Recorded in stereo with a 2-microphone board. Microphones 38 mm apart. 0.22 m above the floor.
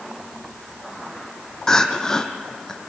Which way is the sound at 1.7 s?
15° left (ahead or behind).